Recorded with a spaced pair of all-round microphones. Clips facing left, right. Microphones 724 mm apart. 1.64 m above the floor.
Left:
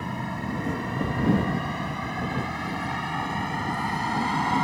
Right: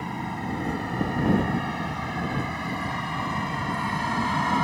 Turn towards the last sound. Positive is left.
turn(degrees=-10)  # may be behind; listen again after turning